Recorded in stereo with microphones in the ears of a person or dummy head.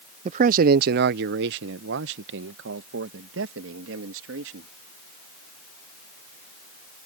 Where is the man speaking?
45° right (ahead or behind); by 4.7 s 85° right.